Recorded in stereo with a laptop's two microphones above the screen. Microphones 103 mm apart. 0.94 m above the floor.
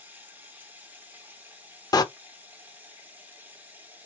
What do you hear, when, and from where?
0.0 s running water: 20° right (ahead or behind), 0.8 m
1.9 s a door slam: 40° left (ahead or behind), 0.6 m